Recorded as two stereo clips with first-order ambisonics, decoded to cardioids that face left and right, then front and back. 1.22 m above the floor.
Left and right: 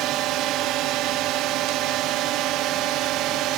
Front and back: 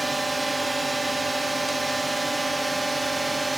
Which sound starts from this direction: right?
A drone, at 0.0 s.